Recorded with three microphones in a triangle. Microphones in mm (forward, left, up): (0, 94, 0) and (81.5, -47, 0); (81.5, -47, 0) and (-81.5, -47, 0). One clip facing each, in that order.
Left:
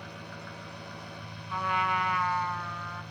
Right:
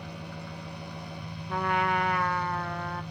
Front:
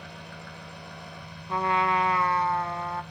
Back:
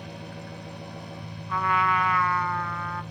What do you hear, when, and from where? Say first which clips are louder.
0.0 s an engine running: right 3 dB, back 4 dB; 135° right, 0.9 m
1.5 s a trumpet: right 3 dB, front 1 dB; 60° right, 0.6 m